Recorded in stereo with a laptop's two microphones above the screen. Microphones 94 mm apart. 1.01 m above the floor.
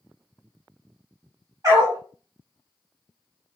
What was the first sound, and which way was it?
A dog barking, 40° right (ahead or behind).